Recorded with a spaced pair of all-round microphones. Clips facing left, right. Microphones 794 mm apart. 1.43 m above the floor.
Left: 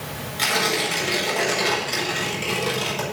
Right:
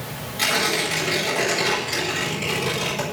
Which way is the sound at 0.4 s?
55° right (ahead or behind).